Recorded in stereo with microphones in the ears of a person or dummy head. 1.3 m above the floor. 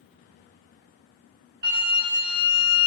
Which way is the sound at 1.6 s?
60° right (ahead or behind).